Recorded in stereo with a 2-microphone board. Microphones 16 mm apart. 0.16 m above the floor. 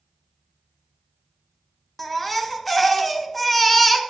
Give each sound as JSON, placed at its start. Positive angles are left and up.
{"t": 2.0, "sound": "a baby crying", "side_deg": 10, "distance_m": 1.3}